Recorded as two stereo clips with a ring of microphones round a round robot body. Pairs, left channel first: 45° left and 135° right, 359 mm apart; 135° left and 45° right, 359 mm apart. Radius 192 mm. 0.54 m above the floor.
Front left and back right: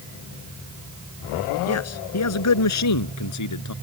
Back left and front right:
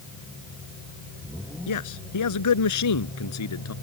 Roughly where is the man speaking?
Left.